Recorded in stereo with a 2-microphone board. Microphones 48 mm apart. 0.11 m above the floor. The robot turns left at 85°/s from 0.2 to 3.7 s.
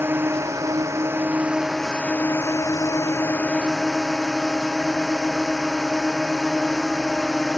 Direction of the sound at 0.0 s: 50° right.